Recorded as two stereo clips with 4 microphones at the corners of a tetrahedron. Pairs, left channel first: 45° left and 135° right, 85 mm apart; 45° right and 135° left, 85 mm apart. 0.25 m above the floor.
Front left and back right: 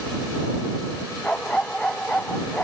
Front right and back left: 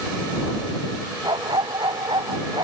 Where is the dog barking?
125° left; by 2.6 s 120° left.